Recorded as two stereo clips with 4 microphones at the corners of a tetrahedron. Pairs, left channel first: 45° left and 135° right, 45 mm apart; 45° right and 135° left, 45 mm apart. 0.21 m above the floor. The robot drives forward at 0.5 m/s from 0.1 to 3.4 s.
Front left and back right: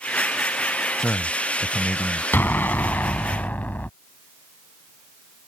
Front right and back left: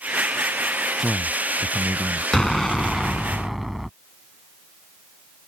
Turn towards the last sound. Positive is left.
turn(degrees=50)